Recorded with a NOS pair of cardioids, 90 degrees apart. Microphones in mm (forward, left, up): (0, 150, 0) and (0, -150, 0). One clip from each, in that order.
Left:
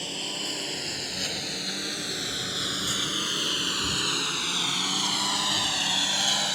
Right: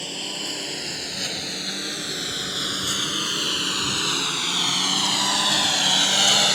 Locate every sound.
0.0 s a lawn mower: 15° right; by 6.5 s 65° right